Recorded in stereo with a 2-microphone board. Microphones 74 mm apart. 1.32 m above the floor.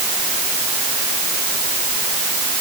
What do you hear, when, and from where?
Only background noise.